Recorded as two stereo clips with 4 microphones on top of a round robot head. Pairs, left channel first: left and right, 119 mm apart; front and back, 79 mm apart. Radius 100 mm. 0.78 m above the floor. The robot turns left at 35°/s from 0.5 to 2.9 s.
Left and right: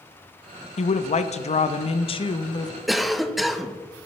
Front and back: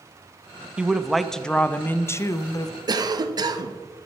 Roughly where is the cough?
Behind.